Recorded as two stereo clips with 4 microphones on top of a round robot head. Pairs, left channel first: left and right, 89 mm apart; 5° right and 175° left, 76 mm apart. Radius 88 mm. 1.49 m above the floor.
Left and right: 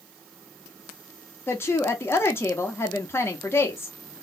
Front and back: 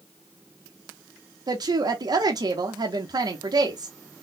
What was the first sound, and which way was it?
A woman speaking, 150° left.